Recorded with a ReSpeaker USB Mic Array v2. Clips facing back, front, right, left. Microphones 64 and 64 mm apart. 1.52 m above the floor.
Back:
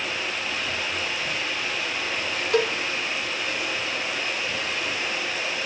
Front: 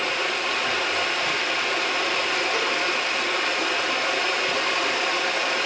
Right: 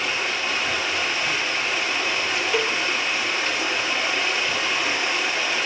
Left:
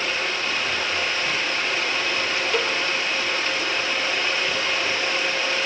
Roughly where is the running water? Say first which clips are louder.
Front 4 dB, even; ahead.